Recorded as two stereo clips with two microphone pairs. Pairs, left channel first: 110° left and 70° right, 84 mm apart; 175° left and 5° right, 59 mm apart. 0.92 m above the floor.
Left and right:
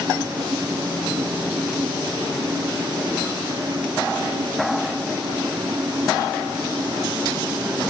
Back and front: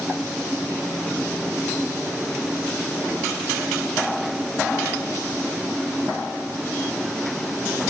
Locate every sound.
Only background noise.